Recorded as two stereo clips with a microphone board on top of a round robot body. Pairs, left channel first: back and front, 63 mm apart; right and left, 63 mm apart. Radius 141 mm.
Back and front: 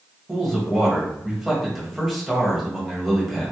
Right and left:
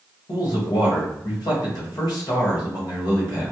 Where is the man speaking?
85° right, 1.4 m.